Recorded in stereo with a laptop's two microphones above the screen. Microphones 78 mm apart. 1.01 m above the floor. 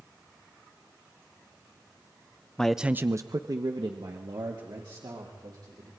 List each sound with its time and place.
2.6 s a man speaking: 10° left (ahead or behind), 0.8 m; by 5.9 s 70° right (ahead or behind), 4 m